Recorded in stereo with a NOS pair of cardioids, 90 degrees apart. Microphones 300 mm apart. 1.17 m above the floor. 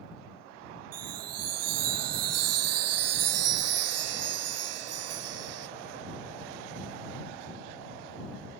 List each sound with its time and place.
0.9 s a chime: 60° right